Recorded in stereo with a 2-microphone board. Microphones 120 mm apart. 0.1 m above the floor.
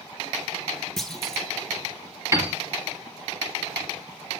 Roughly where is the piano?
Right.